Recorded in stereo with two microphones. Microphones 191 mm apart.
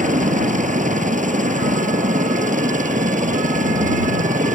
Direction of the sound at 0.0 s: 40° right (ahead or behind).